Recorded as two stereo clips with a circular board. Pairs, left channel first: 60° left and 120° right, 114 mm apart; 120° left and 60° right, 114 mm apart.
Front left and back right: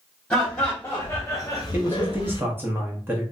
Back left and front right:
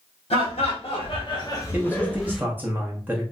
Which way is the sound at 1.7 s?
100° right.